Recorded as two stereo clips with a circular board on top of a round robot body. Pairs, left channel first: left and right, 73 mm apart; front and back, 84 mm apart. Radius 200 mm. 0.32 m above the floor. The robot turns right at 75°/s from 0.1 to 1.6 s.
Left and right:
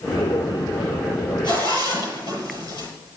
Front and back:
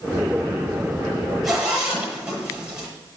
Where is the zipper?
90° left, 7 m; by 2.9 s 105° left, 7 m.